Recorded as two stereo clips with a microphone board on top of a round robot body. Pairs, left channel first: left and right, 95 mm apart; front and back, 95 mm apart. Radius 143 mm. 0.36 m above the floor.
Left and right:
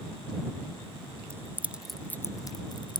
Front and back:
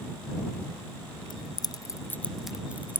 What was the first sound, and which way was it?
Keys jangling, 30° right.